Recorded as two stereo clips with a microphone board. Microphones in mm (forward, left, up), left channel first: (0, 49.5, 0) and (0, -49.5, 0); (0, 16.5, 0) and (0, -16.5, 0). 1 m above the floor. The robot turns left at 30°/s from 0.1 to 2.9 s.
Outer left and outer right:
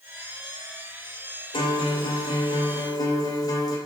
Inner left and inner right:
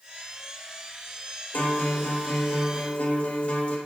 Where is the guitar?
95° left, 0.7 m; by 3.8 s 50° left, 0.7 m.